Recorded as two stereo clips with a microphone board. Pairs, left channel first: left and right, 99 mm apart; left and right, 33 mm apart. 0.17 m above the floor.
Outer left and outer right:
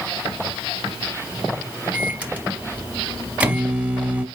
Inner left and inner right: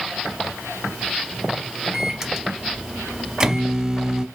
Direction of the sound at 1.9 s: 15° right (ahead or behind).